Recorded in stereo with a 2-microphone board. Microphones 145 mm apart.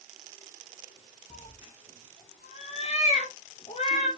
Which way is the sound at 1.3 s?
45° left (ahead or behind).